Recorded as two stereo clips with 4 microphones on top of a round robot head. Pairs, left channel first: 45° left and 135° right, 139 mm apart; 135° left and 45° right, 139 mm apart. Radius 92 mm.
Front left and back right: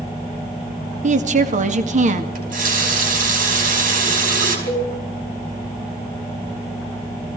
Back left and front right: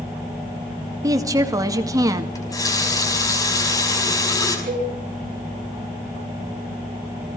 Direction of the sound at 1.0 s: 110° right.